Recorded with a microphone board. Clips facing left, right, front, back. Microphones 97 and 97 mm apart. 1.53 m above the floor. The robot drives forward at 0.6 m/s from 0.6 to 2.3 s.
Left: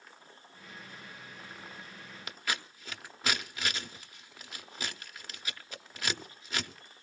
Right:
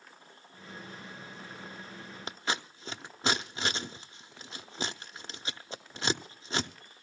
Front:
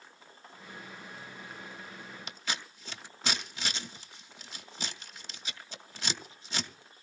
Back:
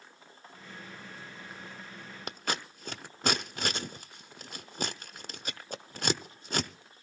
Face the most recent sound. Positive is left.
turn(degrees=-150)